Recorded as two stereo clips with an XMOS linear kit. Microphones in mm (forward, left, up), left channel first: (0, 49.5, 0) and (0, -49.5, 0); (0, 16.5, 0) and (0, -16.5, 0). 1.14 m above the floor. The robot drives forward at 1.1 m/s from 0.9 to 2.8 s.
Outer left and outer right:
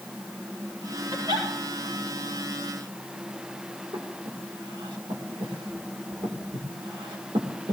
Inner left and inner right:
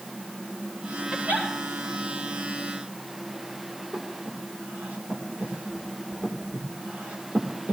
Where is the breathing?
60° right (ahead or behind), 2 m.